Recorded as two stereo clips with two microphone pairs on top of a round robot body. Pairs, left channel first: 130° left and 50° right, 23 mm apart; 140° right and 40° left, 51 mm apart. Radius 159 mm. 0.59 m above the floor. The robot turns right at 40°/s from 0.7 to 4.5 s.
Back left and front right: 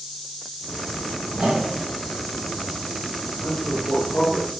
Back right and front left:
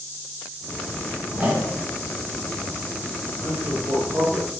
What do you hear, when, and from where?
1.3 s a whoosh: 25° right, 1.7 m; by 1.8 s 5° right, 1.7 m
3.4 s a man speaking: 65° left, 3 m; by 4.5 s 110° left, 3 m